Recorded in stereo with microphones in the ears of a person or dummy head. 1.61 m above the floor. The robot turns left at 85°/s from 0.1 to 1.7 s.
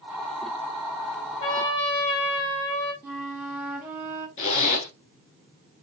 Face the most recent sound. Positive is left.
turn(degrees=40)  # may be behind; listen again after turning